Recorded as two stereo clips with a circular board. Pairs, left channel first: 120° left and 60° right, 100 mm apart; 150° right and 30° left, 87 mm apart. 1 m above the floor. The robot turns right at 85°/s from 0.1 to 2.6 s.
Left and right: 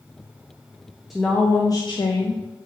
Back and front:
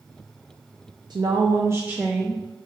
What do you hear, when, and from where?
1.1 s a woman speaking: 30° left, 0.5 m; by 2.4 s 140° left, 0.5 m